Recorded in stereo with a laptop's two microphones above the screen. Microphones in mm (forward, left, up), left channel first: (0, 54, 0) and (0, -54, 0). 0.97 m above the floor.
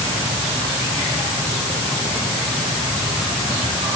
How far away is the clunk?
No clunk in this recording.